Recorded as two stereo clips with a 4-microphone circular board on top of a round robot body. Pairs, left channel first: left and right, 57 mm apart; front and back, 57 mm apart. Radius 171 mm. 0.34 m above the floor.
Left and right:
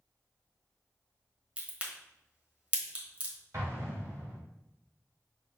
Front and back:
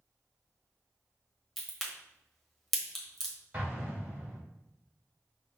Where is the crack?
85° right, 1.5 m.